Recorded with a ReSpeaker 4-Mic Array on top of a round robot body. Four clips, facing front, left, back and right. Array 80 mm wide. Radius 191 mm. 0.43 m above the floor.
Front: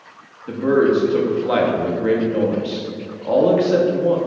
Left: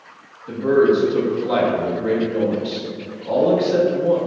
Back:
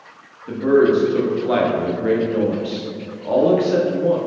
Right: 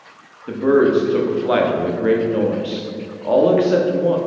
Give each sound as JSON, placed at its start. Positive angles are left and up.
{"t": 0.5, "sound": "a man speaking", "azimuth_deg": -85, "distance_m": 1.2}